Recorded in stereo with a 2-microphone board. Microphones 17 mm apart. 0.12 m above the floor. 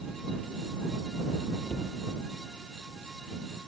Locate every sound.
1.7 s a cupboard door: 50° left (ahead or behind)